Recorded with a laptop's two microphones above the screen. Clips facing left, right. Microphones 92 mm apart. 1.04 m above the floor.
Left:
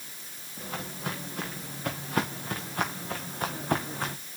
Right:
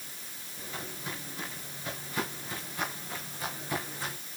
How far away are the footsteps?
About 5.5 m.